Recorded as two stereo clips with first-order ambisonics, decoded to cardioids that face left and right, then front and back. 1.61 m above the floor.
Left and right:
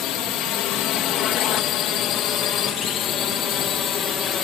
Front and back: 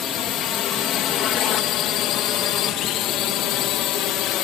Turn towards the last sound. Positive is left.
turn(degrees=35)